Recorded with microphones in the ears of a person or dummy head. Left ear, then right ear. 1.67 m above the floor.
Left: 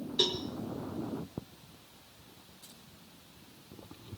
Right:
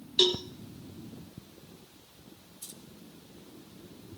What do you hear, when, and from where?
0.2 s a cowbell: 25° right (ahead or behind), 1.1 m
2.6 s keys jangling: 80° right, 4 m